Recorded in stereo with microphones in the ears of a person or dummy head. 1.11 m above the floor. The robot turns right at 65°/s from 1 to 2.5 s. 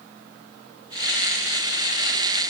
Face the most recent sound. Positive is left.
No sound to turn to.